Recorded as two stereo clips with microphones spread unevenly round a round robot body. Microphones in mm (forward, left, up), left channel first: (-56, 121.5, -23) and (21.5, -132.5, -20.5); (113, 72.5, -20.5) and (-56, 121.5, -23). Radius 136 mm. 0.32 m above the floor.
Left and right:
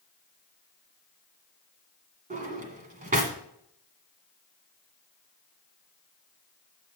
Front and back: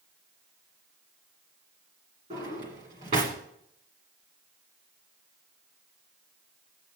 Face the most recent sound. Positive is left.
turn(degrees=-130)